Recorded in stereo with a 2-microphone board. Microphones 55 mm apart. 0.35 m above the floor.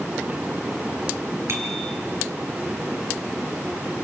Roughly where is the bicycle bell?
Right.